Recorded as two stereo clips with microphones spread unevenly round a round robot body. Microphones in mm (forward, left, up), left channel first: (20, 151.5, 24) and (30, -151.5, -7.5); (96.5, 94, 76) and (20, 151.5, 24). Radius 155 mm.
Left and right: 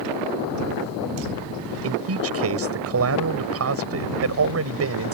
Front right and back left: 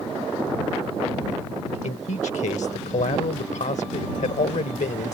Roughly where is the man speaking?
Ahead right.